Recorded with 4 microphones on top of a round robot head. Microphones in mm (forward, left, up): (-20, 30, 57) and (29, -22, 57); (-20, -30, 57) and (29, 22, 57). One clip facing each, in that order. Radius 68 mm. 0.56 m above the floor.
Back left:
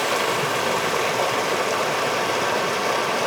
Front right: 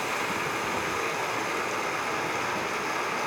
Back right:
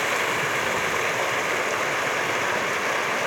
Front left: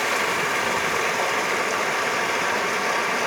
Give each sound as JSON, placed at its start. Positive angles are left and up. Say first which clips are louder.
{"t": 0.0, "sound": "running water", "louder": "back left 8 dB, front left 1 dB", "azimuth_deg": 135, "distance_m": 0.8}